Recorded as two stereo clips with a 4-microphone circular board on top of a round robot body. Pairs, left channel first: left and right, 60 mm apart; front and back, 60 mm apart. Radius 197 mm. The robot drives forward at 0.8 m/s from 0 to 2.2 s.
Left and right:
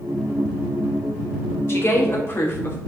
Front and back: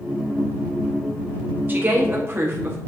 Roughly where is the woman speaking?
Behind left.